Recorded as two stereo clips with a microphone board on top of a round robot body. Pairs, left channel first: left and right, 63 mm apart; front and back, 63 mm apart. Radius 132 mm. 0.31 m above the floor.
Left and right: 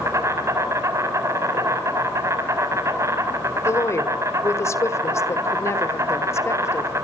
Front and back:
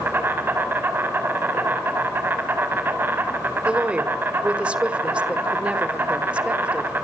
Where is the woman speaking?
110° left, 2 m.